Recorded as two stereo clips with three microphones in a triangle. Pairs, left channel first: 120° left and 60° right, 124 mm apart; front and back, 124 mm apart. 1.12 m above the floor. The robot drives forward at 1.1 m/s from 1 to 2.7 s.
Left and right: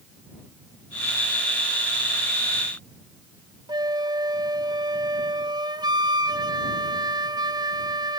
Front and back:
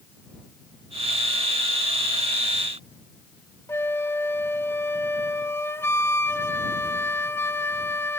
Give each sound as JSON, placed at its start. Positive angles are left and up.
{"t": 3.7, "sound": "a flute", "azimuth_deg": -55, "distance_m": 0.9}